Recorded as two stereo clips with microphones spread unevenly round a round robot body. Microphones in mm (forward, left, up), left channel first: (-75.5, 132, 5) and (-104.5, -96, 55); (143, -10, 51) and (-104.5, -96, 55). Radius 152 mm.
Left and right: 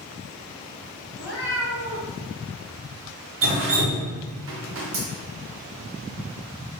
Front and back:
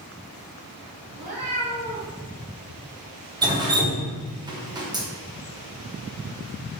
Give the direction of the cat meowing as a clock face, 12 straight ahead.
6 o'clock.